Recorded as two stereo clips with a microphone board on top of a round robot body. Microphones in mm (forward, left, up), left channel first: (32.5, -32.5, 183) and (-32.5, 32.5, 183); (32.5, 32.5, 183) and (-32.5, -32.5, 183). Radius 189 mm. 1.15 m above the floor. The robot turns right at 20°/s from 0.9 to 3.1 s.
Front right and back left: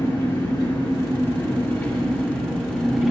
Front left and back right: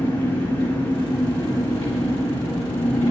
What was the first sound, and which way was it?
An engine running, 5° left.